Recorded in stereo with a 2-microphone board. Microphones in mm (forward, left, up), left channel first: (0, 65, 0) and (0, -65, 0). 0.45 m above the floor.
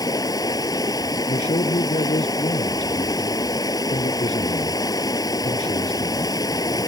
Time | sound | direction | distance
0.0 | running water | 30° left (ahead or behind) | ?
1.3 | a man speaking | 65° left (ahead or behind) | ?